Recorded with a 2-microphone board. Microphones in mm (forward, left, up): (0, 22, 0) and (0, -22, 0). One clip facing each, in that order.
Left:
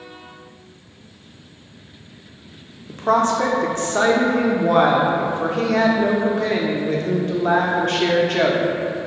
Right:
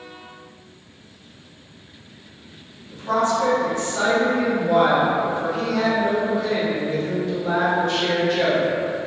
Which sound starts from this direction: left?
A woman speaking, at 2.9 s.